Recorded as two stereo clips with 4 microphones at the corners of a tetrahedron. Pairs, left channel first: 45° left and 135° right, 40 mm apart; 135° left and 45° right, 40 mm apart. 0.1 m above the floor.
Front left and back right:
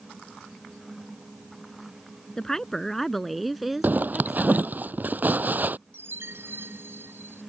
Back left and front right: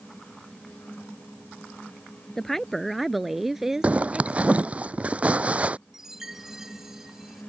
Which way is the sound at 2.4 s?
80° left.